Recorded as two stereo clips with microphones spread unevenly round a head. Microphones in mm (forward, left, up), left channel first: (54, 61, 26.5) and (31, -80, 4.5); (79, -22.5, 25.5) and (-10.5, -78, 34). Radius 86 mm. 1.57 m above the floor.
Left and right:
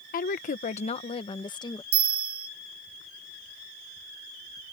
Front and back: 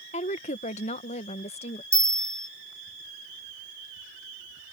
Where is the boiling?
No boiling in this recording.